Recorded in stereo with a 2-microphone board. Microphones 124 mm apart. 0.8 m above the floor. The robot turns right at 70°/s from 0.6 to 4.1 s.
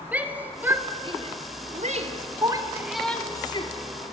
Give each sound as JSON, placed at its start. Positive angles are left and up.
{"t": 0.1, "sound": "a shout", "side_deg": -15, "distance_m": 3.0}